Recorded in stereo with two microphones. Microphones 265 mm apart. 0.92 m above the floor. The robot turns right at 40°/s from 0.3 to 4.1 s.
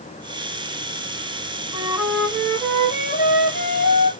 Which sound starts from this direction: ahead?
A flute, at 1.7 s.